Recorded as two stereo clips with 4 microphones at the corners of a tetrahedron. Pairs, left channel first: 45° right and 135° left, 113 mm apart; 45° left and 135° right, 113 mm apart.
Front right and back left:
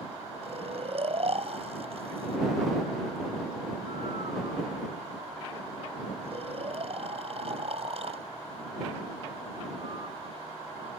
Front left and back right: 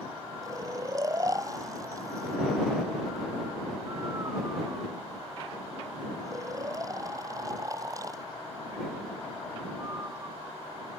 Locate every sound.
0.4 s snoring: 165° left